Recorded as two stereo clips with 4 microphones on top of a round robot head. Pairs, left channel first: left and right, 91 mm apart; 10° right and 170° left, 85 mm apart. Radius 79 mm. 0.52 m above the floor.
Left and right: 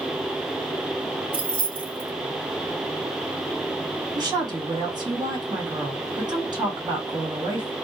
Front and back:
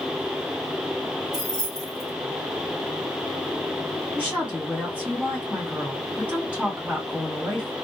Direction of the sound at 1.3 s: 105° right.